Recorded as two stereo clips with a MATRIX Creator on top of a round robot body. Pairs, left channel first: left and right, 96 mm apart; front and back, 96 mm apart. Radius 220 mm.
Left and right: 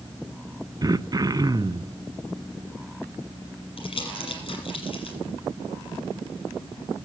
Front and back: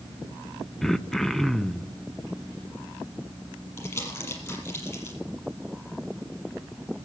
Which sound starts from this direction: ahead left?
Crumpling, at 3.8 s.